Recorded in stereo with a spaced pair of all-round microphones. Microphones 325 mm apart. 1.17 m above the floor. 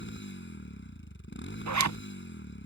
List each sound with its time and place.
0.0 s a motorcycle: 35° left (ahead or behind)
1.7 s a zipper: 60° right (ahead or behind)